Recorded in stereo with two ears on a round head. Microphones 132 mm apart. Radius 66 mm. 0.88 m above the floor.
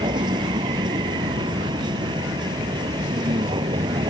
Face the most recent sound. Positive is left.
turn(degrees=-35)  # may be behind; listen again after turning